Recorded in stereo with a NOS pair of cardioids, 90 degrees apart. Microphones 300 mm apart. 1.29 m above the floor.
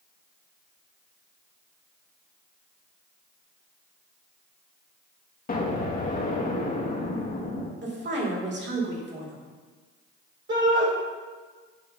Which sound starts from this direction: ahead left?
An explosion, at 5.5 s.